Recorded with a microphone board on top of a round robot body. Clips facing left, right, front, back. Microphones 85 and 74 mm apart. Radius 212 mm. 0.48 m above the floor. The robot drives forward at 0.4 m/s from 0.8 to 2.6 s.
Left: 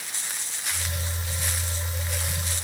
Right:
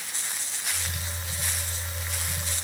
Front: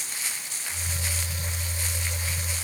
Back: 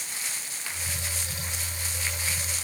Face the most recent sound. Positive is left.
No sound to turn to.